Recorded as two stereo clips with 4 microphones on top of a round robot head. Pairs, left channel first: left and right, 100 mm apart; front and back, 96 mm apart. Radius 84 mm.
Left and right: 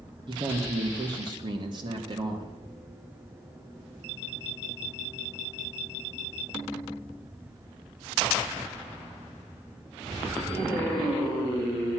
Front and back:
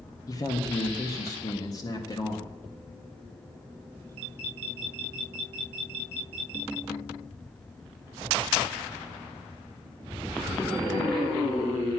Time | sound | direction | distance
0.3 | a man speaking | 50° right | 1.8 m